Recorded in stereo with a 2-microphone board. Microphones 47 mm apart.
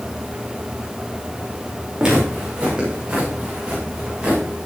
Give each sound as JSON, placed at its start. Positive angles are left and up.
{"t": 2.0, "sound": "footsteps", "side_deg": -20, "distance_m": 5.5}